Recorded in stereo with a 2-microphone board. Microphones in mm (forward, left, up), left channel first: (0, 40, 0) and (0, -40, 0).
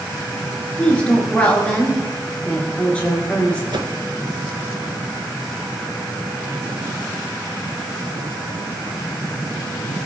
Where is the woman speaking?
15° left (ahead or behind), 3.5 m.